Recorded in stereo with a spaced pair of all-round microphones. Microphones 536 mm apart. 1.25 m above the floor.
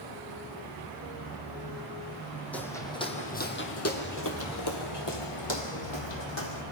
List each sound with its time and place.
2.5 s footsteps: centre (ahead or behind), 2.5 m; by 6.6 s 50° left (ahead or behind), 3 m